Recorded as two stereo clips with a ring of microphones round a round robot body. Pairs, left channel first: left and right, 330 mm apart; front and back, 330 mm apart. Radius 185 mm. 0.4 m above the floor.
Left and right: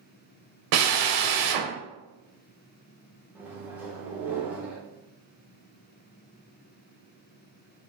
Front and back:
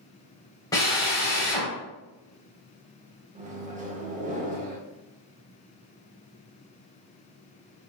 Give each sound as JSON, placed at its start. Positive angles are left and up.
{"t": 0.7, "sound": "a drill", "azimuth_deg": -80, "distance_m": 0.7}
{"t": 3.4, "sound": "a microwave", "azimuth_deg": -170, "distance_m": 0.9}